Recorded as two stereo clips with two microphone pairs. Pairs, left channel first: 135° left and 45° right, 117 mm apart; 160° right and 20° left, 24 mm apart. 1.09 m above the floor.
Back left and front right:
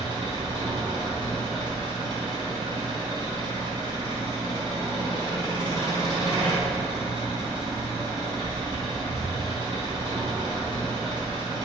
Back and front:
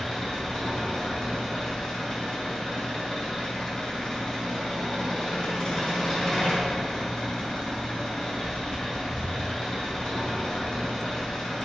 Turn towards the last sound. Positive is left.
turn(degrees=-95)